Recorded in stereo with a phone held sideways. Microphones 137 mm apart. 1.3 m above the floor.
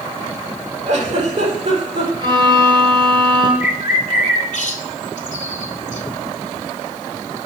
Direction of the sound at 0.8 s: 55° right (ahead or behind).